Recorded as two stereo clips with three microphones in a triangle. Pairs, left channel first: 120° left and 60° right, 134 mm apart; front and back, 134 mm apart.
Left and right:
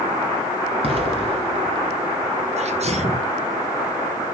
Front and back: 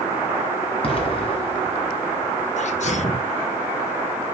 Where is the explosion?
30° right, 1.9 m.